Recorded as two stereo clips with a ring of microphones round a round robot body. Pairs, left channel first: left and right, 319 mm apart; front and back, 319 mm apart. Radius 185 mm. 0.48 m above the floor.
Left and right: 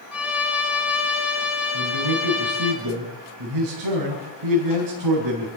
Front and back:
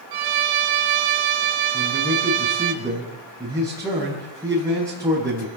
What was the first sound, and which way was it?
A violin, straight behind.